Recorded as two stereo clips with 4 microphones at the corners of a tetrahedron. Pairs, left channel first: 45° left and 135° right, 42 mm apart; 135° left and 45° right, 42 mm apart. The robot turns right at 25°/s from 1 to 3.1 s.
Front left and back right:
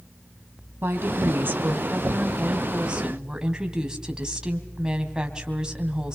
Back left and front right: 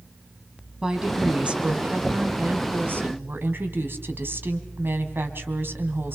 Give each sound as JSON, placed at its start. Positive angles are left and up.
{"t": 0.8, "sound": "a woman speaking", "azimuth_deg": -120, "distance_m": 3.0}